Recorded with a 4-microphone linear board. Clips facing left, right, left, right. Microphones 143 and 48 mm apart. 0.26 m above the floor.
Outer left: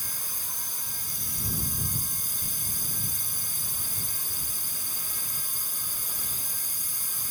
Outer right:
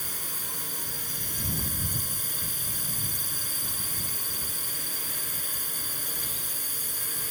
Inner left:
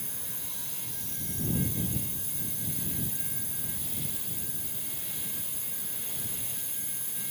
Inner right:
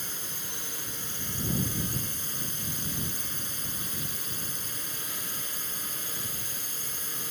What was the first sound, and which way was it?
A drone, 65° right (ahead or behind).